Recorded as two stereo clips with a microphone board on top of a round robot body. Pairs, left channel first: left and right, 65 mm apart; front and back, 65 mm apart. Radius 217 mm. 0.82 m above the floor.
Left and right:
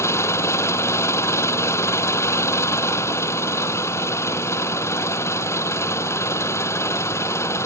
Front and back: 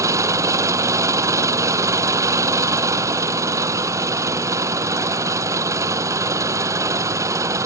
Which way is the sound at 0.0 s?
140° left.